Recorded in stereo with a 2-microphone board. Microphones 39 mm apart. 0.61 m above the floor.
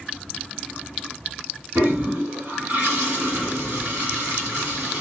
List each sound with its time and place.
1.8 s a toilet flushing: 45° right (ahead or behind), 2 m